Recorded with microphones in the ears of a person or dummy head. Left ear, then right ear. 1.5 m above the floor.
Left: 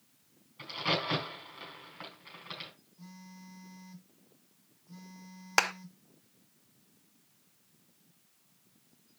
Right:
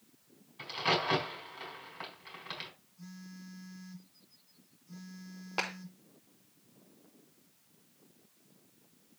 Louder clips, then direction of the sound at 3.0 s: Right 1 dB; 30° right (ahead or behind).